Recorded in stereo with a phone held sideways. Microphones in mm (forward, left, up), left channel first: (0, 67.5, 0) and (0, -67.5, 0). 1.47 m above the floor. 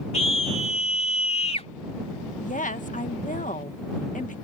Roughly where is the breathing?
I don't hear breathing.